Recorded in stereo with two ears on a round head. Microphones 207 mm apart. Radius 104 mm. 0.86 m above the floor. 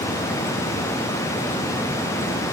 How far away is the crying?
No crying in this recording.